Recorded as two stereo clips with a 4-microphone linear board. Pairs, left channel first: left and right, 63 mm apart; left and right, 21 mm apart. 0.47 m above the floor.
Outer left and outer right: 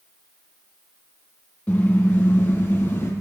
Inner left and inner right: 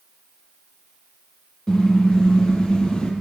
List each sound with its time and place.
1.7 s a car horn: 25° left (ahead or behind), 6.5 m; by 3.1 s 35° left (ahead or behind), 6 m